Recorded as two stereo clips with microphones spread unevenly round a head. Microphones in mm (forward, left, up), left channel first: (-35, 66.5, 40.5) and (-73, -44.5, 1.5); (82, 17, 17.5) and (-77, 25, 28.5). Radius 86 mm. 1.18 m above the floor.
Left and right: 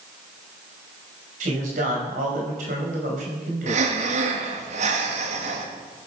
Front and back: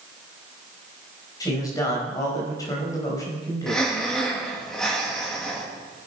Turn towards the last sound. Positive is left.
turn(degrees=-90)